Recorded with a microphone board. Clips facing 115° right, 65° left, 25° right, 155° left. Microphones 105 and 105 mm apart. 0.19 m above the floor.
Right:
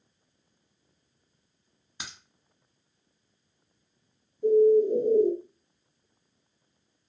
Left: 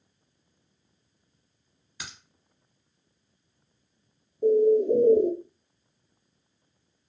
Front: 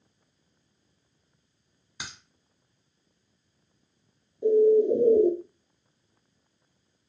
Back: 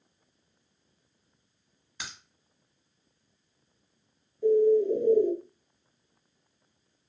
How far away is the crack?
About 1.1 m.